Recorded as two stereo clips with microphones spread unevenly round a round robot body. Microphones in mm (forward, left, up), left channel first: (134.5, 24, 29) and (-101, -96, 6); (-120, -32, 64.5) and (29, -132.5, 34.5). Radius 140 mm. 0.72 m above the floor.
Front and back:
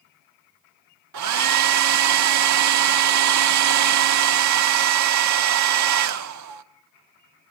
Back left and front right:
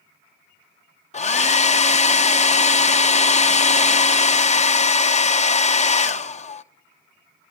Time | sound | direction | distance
1.1 | a hair dryer | 160° right | 1.1 m